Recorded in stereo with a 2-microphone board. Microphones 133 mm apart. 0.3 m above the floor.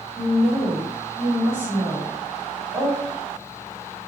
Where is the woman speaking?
40° right (ahead or behind), 1.9 m.